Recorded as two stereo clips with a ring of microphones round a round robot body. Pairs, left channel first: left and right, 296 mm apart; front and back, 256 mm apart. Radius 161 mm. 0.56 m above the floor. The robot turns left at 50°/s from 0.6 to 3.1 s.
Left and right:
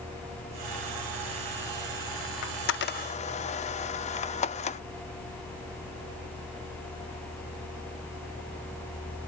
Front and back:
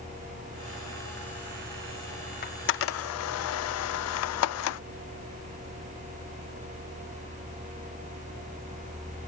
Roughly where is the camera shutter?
Ahead left.